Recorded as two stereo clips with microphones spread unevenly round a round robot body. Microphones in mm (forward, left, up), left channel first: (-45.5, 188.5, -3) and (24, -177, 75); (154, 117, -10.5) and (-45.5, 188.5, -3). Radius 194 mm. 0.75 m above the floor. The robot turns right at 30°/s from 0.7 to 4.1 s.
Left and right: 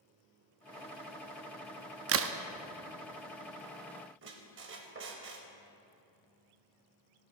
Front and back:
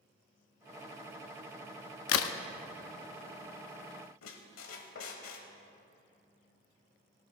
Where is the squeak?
25° right, 1.0 m.